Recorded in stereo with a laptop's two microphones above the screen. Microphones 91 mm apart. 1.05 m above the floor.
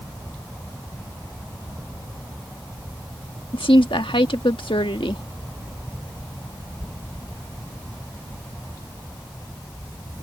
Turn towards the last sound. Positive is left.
turn(degrees=85)